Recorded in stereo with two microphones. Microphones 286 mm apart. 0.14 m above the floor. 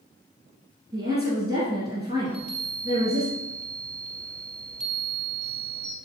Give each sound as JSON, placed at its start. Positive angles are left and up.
{"t": 0.9, "sound": "a woman speaking", "side_deg": -20, "distance_m": 2.0}
{"t": 2.2, "sound": "a chime", "side_deg": 0, "distance_m": 2.0}